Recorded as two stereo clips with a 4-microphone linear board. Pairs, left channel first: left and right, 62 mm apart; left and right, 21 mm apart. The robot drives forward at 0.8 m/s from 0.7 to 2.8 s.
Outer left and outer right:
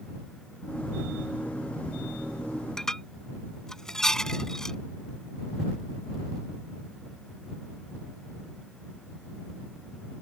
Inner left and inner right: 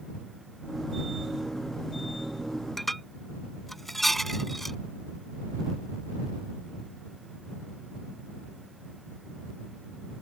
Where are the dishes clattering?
10° left (ahead or behind).